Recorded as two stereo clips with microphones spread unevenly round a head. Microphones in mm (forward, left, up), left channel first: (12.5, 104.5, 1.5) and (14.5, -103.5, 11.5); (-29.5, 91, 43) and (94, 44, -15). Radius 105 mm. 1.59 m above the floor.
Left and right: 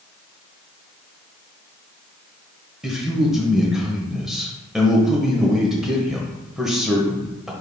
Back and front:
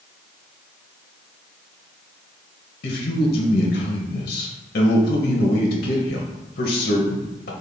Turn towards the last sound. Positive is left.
turn(degrees=180)